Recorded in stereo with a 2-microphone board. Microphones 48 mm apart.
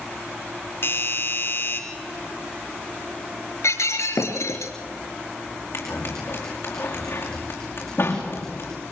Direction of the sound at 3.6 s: 85° left.